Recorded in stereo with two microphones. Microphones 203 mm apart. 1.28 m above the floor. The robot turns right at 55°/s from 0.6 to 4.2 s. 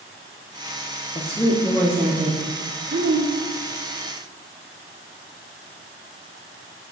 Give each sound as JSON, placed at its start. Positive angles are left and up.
{"t": 1.1, "sound": "a woman speaking", "azimuth_deg": 150, "distance_m": 0.6}